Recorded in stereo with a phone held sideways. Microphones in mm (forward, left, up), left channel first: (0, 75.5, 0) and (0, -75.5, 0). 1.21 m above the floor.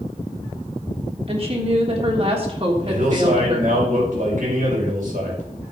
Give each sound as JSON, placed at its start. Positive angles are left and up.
{"t": 1.3, "sound": "a woman speaking", "side_deg": -40, "distance_m": 3.0}
{"t": 2.9, "sound": "a man speaking", "side_deg": -60, "distance_m": 6.0}